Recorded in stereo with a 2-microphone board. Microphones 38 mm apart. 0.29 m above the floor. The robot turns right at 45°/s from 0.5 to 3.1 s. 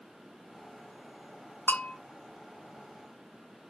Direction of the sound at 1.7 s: 70° left (ahead or behind).